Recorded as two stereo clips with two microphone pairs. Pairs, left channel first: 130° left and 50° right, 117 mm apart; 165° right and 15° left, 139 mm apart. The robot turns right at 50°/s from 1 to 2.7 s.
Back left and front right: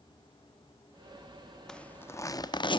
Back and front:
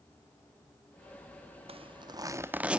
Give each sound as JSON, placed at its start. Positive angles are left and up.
{"t": 1.7, "sound": "a zipper", "azimuth_deg": 45, "distance_m": 0.9}